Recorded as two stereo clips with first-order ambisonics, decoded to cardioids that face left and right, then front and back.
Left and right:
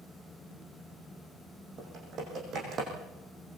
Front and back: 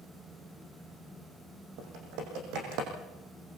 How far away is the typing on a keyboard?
About 7.5 m.